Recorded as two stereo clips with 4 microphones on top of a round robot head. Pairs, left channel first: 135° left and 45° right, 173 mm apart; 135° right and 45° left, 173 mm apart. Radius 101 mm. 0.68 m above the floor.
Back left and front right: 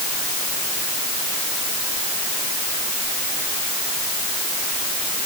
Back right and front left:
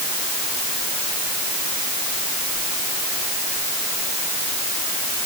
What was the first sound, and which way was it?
Only background noise.